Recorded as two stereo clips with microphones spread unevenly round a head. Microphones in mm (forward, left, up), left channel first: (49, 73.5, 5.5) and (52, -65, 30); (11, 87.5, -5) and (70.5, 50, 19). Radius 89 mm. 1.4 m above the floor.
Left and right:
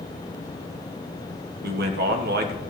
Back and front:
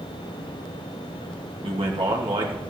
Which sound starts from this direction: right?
A man speaking, at 1.6 s.